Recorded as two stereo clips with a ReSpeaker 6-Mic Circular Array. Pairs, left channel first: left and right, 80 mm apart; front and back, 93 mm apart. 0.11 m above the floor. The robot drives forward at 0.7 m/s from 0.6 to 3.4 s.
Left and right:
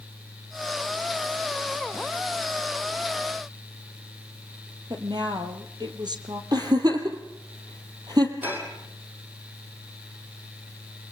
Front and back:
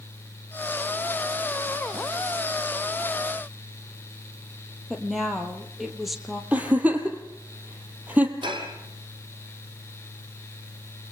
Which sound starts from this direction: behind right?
Dishes clattering, at 8.4 s.